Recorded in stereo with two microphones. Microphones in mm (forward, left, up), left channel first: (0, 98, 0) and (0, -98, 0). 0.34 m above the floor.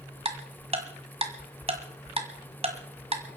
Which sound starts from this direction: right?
Ticking, at 0.2 s.